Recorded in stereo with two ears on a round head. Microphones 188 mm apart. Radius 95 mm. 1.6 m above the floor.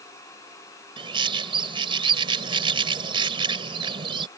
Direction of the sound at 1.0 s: 25° right (ahead or behind).